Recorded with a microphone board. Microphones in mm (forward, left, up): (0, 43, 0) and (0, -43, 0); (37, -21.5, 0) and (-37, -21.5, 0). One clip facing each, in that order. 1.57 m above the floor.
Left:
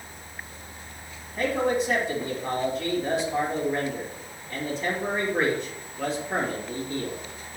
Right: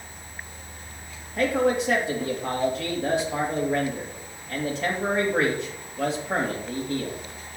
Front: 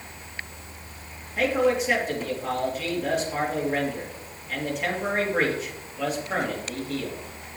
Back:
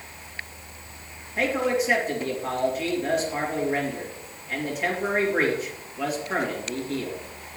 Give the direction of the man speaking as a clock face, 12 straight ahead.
3 o'clock.